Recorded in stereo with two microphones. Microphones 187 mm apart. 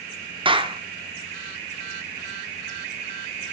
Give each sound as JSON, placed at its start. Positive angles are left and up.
{"t": 0.5, "sound": "a clap", "side_deg": -30, "distance_m": 0.7}